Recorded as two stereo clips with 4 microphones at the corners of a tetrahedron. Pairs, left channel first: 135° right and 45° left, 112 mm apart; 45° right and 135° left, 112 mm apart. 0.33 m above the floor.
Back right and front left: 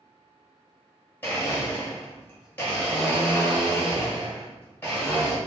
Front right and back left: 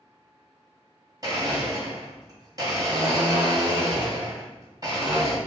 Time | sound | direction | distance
1.2 | a blender | 160° left | 1.5 m